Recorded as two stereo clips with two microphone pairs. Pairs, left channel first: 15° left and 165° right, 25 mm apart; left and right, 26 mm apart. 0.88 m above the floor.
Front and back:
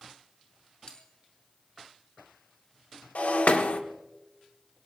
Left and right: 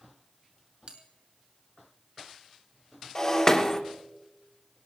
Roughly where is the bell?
Ahead right.